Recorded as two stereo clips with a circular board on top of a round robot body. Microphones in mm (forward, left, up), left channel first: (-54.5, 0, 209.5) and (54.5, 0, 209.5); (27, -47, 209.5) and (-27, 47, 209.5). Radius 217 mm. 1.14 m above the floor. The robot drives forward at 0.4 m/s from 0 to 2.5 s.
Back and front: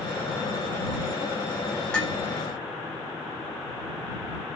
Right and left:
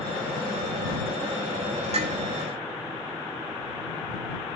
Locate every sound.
1.9 s dishes clattering: 100° left, 6 m